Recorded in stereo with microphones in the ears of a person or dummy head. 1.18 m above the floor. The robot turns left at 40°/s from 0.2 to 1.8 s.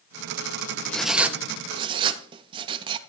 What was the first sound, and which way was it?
Writing, 5° left (ahead or behind).